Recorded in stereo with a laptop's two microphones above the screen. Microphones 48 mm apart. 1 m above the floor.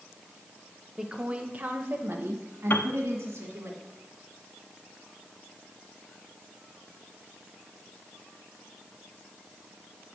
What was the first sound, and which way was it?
A woman speaking, 10° right (ahead or behind).